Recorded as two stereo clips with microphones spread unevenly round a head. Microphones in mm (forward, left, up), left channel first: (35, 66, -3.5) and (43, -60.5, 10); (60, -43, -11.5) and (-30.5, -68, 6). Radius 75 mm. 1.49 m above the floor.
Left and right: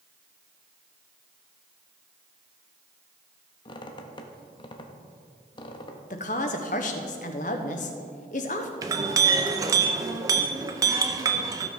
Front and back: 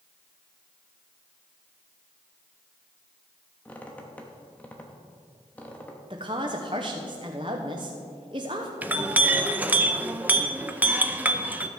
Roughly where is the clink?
Behind right.